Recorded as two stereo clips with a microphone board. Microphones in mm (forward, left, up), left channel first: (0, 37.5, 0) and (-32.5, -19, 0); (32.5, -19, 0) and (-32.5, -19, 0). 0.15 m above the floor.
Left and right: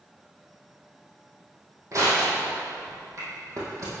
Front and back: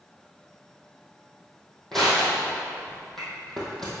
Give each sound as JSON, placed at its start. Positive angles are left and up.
{"t": 1.9, "sound": "crushing", "azimuth_deg": -85, "distance_m": 3.0}